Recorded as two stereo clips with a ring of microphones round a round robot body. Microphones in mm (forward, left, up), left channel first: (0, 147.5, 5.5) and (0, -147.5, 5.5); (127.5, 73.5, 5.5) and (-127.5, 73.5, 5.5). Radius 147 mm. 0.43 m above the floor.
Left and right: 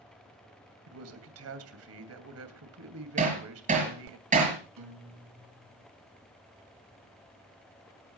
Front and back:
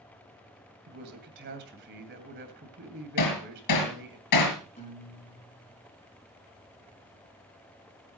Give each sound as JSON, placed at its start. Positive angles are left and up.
{"t": 0.9, "sound": "a man speaking", "azimuth_deg": -125, "distance_m": 2.5}
{"t": 3.2, "sound": "hammering", "azimuth_deg": -25, "distance_m": 5.0}
{"t": 4.8, "sound": "a guitar", "azimuth_deg": -65, "distance_m": 3.5}